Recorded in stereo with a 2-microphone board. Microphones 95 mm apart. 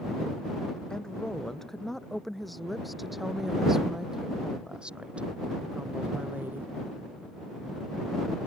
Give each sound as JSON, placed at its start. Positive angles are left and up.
{"t": 0.9, "sound": "a woman speaking", "side_deg": 5}